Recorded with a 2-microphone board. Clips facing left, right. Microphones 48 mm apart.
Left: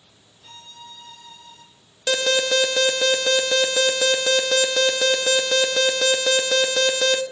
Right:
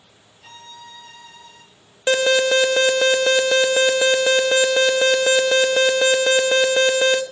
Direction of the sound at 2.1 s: 25° right (ahead or behind).